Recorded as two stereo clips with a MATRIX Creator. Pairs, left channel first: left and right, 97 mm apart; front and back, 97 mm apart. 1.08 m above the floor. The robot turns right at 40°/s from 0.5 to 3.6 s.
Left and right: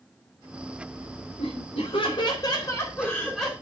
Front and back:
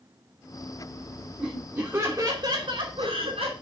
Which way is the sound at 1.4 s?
100° left.